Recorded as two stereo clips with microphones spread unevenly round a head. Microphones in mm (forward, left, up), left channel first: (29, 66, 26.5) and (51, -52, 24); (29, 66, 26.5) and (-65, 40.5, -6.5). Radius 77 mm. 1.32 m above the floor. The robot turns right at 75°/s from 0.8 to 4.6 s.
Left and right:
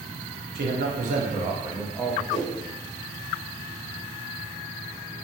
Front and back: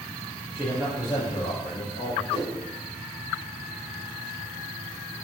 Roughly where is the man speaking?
Right.